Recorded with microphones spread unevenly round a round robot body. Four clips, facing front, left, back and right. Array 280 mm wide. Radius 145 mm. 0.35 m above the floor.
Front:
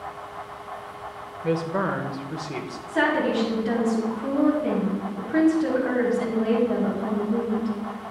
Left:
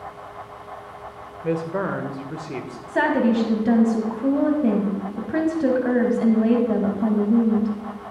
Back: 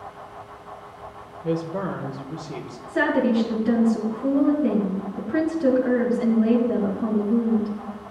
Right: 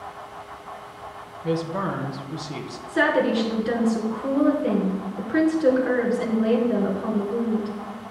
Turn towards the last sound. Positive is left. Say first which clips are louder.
# left 1 dB, back 2 dB
turn(degrees=110)